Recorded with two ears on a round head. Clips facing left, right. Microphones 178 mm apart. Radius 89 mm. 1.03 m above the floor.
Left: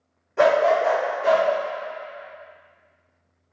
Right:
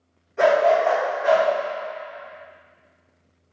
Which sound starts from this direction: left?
A dog barking, at 0.4 s.